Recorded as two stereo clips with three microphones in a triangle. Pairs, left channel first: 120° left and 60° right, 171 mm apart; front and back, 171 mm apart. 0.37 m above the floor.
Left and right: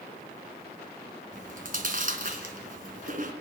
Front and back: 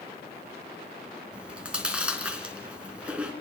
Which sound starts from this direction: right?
Chewing, at 1.3 s.